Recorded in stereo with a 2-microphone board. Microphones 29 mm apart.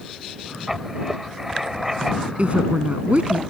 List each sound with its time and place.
0.7 s writing: 10° right (ahead or behind)
2.4 s a woman speaking: 50° right (ahead or behind)